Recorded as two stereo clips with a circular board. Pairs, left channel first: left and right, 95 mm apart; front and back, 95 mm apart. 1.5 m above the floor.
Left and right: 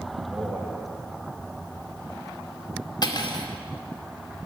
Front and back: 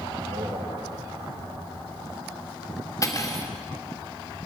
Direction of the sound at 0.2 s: 165° right.